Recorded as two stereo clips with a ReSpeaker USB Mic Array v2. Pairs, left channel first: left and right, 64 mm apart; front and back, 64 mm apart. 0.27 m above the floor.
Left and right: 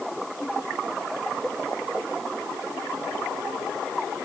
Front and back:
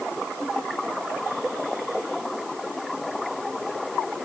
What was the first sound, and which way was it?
Only background noise.